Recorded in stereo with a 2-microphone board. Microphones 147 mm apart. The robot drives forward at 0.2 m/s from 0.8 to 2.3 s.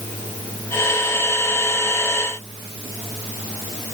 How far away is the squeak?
No squeak in this recording.